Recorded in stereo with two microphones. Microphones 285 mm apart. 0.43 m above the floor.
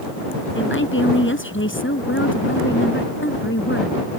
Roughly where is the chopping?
I don't hear chopping.